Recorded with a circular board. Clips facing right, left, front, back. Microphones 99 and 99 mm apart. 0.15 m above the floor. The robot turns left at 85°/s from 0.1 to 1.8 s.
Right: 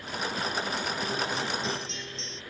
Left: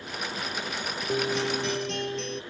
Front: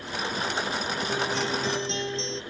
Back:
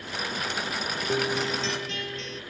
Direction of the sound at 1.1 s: 125° left.